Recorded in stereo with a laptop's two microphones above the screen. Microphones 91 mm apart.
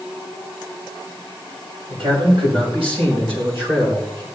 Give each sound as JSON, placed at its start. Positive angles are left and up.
{"t": 1.9, "sound": "a man speaking", "side_deg": -75, "distance_m": 4.5}